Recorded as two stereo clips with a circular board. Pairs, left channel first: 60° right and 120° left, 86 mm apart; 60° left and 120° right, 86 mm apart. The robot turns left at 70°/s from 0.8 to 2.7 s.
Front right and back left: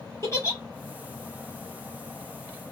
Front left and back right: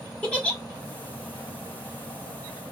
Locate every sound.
0.2 s a giggle: 15° right, 1.2 m